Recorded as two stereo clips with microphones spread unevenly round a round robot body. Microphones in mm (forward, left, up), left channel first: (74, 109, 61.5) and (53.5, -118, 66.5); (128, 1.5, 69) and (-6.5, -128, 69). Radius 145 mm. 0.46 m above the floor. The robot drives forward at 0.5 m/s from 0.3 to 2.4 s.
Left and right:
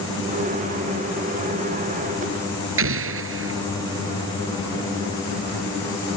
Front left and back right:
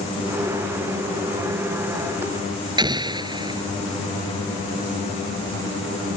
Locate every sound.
2.8 s an explosion: 70° right